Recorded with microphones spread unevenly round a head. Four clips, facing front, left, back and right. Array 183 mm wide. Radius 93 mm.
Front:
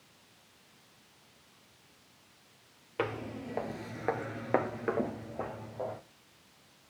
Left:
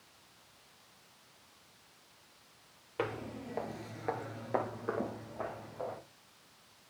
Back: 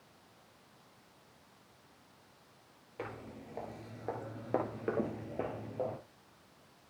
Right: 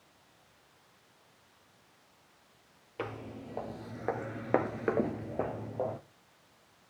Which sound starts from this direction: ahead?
Footsteps, at 3.0 s.